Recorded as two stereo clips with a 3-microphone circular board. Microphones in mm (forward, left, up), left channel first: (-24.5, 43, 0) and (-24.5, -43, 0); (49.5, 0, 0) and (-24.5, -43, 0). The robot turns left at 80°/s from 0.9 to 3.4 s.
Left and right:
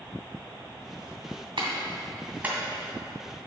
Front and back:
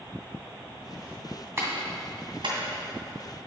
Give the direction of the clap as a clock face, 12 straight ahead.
3 o'clock.